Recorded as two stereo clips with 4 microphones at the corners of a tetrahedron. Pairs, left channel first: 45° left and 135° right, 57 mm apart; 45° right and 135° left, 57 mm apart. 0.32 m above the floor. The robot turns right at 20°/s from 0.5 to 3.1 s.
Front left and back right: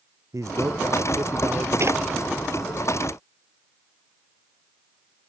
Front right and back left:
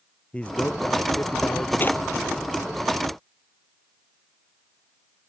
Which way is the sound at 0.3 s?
110° right.